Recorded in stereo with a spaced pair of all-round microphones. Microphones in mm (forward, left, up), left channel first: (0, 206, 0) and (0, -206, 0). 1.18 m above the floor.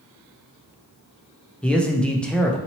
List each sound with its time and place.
1.6 s a man speaking: 5° left (ahead or behind), 0.5 m